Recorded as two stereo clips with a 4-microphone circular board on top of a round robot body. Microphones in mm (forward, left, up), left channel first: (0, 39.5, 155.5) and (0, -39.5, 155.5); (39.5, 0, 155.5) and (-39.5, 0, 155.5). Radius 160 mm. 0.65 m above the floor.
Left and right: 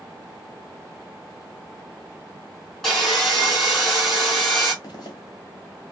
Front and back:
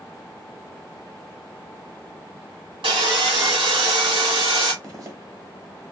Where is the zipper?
130° left, 1.0 m.